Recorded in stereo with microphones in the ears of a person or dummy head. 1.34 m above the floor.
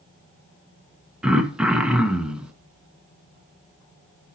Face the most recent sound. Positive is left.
turn(degrees=-5)  # may be behind; listen again after turning